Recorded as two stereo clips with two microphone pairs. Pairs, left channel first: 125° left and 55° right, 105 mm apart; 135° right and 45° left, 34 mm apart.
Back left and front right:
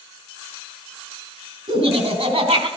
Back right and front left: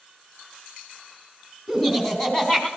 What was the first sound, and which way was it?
Laughter, 50° right.